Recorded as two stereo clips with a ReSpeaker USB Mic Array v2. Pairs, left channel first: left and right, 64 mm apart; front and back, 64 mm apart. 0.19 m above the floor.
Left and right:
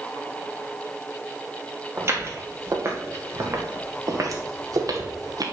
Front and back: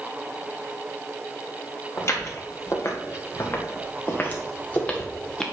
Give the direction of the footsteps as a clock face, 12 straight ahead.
1 o'clock.